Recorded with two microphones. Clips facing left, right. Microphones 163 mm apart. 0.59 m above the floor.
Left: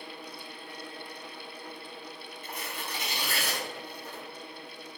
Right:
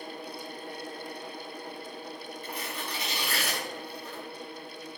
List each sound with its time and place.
2.4 s tearing paper: 45° left (ahead or behind), 1.5 m